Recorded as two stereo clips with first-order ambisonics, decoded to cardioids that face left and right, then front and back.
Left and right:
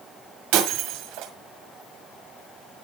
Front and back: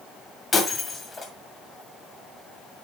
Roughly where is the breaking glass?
Right.